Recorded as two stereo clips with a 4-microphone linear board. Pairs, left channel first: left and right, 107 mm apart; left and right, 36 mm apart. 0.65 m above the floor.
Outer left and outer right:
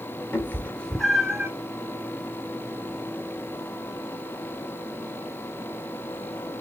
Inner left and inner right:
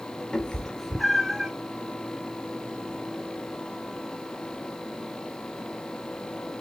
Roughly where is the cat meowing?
Left.